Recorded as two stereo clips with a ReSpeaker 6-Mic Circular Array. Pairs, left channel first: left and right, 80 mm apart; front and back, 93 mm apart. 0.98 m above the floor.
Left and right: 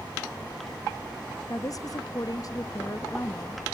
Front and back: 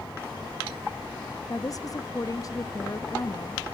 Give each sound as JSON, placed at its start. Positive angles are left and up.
{"t": 1.5, "sound": "a woman speaking", "azimuth_deg": 50, "distance_m": 1.0}